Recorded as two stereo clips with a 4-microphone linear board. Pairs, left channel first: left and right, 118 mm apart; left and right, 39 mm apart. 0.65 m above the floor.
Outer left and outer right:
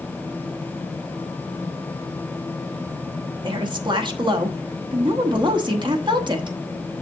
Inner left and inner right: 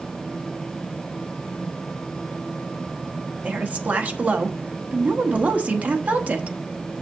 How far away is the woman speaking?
About 1.1 m.